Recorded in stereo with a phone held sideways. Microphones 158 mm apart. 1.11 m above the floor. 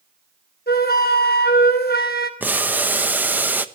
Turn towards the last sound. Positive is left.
turn(degrees=-10)  # may be behind; listen again after turning